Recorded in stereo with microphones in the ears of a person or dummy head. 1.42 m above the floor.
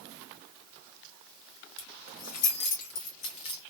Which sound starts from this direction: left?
Keys jangling, at 1.8 s.